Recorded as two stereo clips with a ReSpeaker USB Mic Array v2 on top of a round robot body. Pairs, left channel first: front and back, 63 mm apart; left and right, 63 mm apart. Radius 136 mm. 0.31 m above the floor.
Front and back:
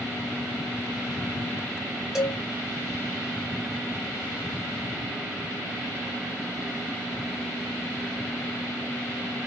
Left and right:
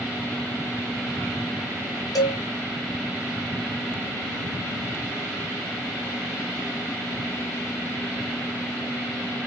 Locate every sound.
2.1 s a cowbell: 100° left, 1.6 m